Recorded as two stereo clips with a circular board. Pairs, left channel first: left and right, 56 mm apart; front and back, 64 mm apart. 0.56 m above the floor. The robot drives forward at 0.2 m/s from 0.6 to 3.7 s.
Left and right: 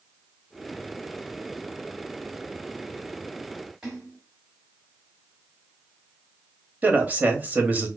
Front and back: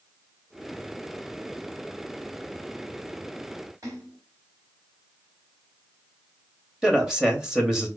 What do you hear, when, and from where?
3.8 s a splash: 170° right, 2.0 m
6.8 s a man speaking: 110° right, 0.8 m